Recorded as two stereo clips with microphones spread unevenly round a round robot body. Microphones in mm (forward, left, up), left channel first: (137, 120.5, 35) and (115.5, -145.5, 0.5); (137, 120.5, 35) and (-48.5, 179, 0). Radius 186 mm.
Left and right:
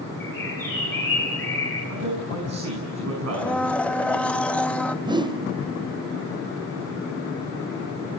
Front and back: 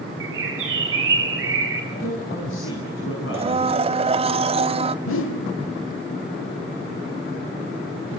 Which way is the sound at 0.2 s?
170° left.